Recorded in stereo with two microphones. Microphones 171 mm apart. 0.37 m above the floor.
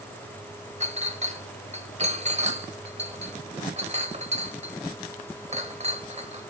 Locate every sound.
0.8 s a clink: 40° right (ahead or behind), 1.2 m